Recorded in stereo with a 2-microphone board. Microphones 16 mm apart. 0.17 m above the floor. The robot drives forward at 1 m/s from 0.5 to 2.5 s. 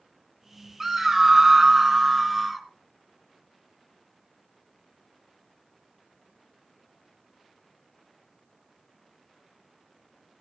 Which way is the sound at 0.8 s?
20° right (ahead or behind).